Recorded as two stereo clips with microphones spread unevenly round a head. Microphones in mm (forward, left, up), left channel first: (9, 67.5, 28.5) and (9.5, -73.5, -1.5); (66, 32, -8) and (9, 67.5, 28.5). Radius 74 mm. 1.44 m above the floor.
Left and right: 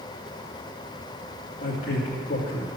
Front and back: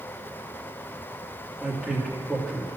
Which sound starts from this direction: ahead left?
A man speaking, at 1.6 s.